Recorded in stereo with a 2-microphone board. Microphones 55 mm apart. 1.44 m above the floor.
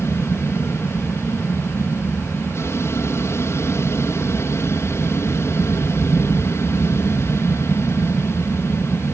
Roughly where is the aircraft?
Left.